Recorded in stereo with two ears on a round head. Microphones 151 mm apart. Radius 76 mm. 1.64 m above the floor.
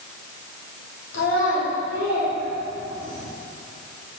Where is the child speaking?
75° left (ahead or behind), 3 m.